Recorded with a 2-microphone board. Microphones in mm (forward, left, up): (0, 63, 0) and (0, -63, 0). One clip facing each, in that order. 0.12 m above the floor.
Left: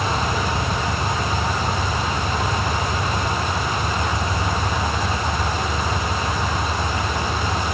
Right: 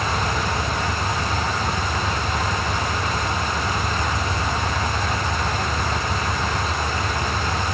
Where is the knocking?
I don't hear knocking.